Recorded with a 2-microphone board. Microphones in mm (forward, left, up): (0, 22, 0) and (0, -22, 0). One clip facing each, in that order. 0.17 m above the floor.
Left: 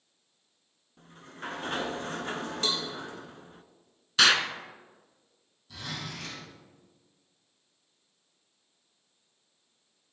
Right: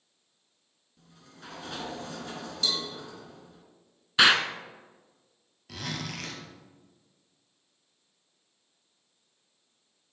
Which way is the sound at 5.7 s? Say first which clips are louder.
Right 2 dB; 75° right (ahead or behind).